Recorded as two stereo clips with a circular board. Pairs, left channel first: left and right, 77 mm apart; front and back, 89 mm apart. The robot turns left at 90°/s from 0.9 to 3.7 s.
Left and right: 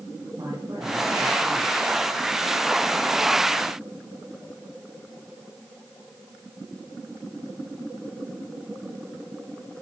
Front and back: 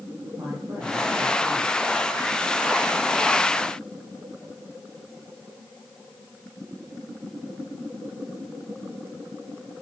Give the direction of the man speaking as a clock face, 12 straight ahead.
4 o'clock.